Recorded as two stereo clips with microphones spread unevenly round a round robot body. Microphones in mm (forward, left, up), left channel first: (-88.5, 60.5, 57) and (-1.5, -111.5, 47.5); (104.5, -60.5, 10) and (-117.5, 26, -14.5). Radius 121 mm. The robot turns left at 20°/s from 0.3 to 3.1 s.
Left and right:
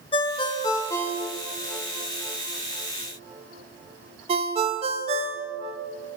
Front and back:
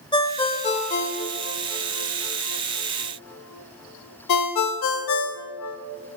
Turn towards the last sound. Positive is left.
turn(degrees=-5)